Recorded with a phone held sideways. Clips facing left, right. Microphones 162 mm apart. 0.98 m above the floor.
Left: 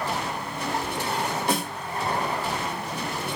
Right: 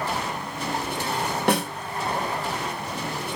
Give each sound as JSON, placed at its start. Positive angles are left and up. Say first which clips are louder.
{"t": 1.5, "sound": "a snare drum", "louder": "right 6 dB", "side_deg": -65, "distance_m": 1.0}